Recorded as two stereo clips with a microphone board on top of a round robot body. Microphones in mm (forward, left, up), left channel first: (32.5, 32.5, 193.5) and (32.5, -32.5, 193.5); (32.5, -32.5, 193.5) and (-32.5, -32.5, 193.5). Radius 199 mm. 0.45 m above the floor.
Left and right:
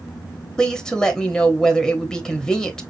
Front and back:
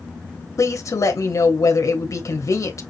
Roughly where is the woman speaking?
Ahead.